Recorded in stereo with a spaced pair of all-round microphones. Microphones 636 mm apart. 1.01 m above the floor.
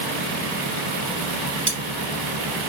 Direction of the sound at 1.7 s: 40° right (ahead or behind).